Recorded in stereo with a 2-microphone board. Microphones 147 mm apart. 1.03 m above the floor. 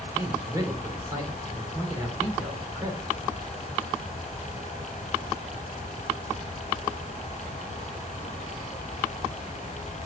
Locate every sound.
0.1 s a man speaking: 20° right (ahead or behind), 4 m